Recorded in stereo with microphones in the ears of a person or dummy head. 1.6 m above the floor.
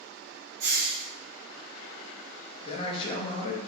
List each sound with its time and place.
0.6 s a hiss: 50° right (ahead or behind), 0.9 m
2.6 s a man speaking: 30° left (ahead or behind), 0.6 m